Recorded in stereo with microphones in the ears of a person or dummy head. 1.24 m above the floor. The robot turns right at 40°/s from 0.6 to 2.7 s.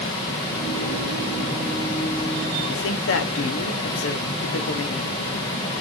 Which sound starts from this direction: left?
A woman speaking, at 2.7 s.